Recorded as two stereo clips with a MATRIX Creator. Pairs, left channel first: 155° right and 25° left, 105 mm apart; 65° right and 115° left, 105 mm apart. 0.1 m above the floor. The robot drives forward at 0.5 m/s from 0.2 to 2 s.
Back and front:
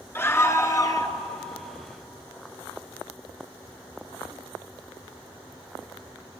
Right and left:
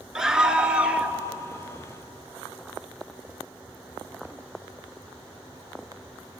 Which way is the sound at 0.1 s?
175° right.